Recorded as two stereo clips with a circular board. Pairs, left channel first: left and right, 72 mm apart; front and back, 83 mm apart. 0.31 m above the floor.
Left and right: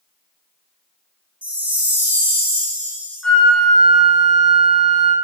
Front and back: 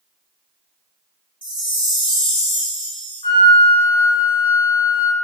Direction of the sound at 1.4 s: 160° right.